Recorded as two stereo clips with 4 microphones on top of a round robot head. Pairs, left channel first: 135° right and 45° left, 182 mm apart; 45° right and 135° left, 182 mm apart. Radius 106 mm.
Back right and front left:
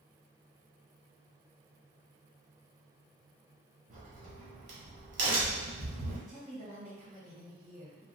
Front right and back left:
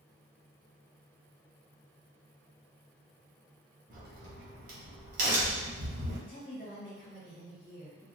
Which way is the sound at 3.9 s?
90° left.